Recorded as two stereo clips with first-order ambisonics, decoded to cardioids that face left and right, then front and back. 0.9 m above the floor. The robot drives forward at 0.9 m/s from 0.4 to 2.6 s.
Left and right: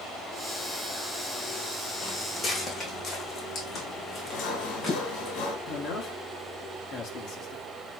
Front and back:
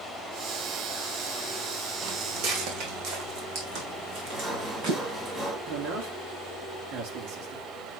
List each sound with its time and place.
2.0 s footsteps: 165° left, 1.8 m; by 5.3 s 155° left, 4.5 m
4.3 s sawing: 115° left, 1.6 m
5.7 s a man speaking: 150° left, 1.8 m